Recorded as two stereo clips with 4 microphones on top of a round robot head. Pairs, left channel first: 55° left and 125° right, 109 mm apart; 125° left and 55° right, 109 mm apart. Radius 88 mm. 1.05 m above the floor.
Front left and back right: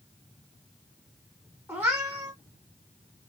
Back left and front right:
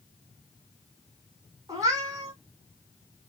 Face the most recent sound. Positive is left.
turn(degrees=-75)